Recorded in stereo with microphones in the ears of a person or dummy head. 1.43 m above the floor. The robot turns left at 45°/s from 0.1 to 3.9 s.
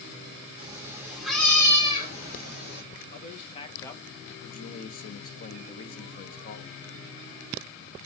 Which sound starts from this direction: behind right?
A cat meowing, at 0.6 s.